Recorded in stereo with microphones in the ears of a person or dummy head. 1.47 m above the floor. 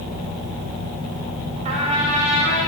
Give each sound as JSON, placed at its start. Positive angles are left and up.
{"t": 1.6, "sound": "a trumpet", "side_deg": -35, "distance_m": 1.7}